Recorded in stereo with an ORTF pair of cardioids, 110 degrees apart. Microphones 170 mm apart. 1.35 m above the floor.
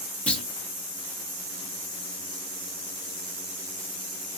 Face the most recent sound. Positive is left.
turn(degrees=5)